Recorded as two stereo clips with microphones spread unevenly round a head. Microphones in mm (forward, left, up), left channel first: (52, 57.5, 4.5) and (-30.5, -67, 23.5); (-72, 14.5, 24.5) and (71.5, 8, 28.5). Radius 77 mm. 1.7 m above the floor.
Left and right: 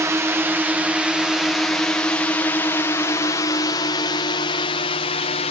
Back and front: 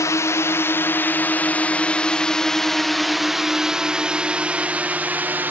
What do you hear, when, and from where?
0.0 s a drone: straight behind; by 5.5 s 70° left